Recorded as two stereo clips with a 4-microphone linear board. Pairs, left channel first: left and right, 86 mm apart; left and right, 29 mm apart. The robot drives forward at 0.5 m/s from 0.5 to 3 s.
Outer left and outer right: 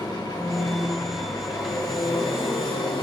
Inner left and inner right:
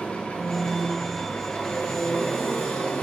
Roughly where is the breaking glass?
No breaking glass in this recording.